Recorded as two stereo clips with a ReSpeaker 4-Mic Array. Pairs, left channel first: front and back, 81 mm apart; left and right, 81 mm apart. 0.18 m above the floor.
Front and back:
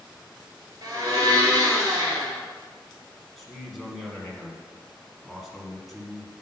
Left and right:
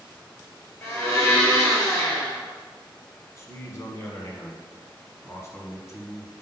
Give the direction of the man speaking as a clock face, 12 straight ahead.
9 o'clock.